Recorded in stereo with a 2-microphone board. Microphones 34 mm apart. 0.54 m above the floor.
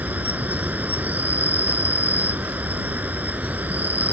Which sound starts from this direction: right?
An insect, at 0.0 s.